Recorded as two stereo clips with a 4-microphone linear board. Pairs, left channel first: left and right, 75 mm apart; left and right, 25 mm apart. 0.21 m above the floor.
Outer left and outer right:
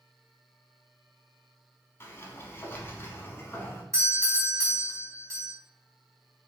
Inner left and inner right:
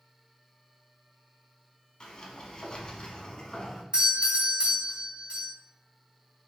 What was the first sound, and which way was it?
A sliding door, 35° left (ahead or behind).